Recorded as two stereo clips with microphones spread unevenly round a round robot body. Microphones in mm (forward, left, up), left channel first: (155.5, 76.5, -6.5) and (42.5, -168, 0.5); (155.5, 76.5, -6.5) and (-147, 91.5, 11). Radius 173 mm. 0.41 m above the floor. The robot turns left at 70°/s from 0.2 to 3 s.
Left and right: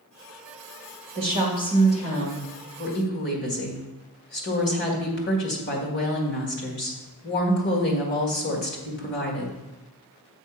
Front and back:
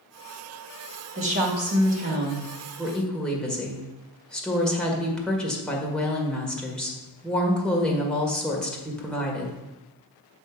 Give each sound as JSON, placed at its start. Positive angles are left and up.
{"t": 1.1, "sound": "a woman speaking", "azimuth_deg": -150, "distance_m": 1.6}